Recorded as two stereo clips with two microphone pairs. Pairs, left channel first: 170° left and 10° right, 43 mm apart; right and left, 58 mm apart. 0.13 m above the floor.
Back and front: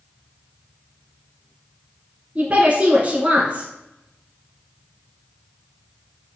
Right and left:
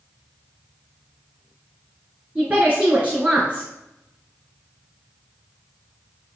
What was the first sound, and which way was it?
A woman speaking, 30° left.